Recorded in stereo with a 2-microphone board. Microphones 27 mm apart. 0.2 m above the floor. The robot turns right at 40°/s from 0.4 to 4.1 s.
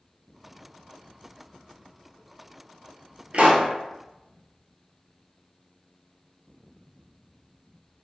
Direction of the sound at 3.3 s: 50° right (ahead or behind).